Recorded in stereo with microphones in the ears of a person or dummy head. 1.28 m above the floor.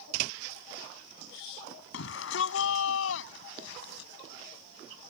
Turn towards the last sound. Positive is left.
turn(degrees=75)  # may be behind; listen again after turning